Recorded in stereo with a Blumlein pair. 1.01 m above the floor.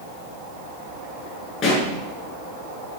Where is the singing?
I don't hear singing.